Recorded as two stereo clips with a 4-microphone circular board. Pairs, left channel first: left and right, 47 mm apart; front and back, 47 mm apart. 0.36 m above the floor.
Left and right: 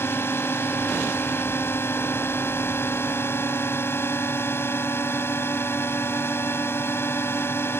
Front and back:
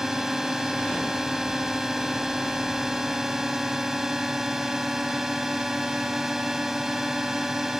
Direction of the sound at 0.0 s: 100° left.